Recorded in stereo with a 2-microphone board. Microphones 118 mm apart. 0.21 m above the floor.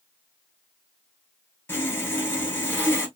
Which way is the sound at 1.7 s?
15° left (ahead or behind).